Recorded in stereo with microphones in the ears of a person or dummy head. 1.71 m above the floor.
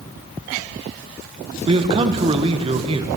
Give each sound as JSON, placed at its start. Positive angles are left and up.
{"t": 1.7, "sound": "a man speaking", "side_deg": -35, "distance_m": 1.1}